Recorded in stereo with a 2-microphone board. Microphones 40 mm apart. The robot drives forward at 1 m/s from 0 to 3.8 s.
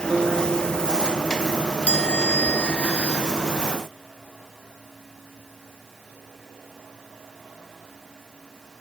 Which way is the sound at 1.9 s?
35° left (ahead or behind).